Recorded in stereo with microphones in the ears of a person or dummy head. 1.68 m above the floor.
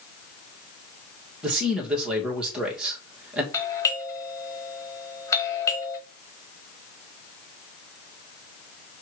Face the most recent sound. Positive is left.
turn(degrees=20)  # may be behind; listen again after turning